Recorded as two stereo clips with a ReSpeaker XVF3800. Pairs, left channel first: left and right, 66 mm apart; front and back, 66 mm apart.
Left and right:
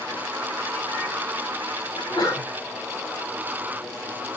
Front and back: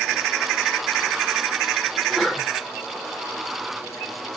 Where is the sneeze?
100° left, 5 m.